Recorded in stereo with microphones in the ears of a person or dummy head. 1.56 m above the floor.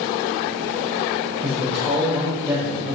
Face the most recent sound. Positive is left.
turn(degrees=0)  # may be behind; listen again after turning